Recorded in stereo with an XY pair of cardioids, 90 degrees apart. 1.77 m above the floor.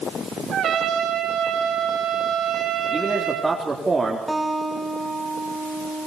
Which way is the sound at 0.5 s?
70° right.